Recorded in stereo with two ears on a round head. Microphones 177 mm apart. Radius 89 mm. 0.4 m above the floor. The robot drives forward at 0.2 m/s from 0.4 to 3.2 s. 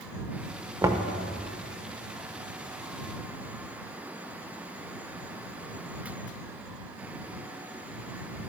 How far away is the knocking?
About 0.5 m.